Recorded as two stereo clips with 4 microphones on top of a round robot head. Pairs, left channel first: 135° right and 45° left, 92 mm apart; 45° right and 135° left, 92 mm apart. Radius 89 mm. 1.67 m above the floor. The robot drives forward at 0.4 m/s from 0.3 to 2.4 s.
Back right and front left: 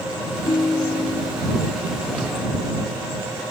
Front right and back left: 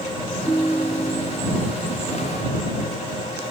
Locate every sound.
0.5 s a ringtone: 140° right, 1.2 m; by 1.5 s 155° right, 1.5 m